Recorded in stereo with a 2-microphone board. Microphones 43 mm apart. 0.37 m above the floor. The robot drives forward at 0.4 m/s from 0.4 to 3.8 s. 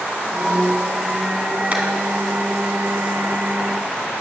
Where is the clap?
30° right (ahead or behind), 2.5 m.